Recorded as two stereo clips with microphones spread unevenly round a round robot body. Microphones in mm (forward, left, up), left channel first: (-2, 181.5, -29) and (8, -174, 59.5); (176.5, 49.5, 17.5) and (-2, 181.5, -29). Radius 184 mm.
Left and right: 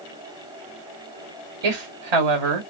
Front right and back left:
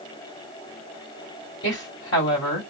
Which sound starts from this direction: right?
A woman speaking, at 1.6 s.